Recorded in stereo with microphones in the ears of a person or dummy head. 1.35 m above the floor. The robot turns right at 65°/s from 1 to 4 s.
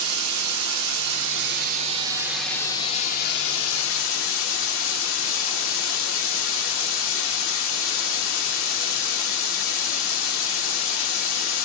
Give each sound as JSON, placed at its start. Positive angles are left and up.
{"t": 0.0, "sound": "running water", "azimuth_deg": -90, "distance_m": 0.9}